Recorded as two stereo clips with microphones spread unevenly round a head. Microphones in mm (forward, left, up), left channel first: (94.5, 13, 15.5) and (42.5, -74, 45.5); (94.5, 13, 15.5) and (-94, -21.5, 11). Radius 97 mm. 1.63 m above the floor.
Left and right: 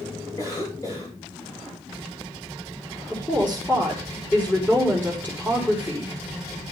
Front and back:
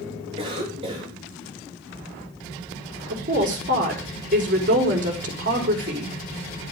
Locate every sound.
0.4 s a cough: 125° left, 3.5 m
3.1 s a woman speaking: 140° left, 4 m